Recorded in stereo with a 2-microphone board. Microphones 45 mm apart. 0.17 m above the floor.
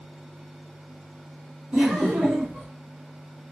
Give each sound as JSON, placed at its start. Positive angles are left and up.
{"t": 1.7, "sound": "laughter", "side_deg": -30, "distance_m": 2.0}